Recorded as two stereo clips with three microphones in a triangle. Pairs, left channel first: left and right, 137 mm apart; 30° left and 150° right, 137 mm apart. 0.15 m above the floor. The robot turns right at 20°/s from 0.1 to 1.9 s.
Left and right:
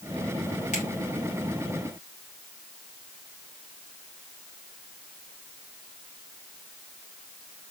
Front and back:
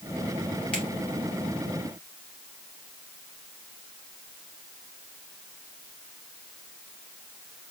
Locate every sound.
0.7 s a finger snap: 110° left, 3 m; by 0.8 s 115° left, 3 m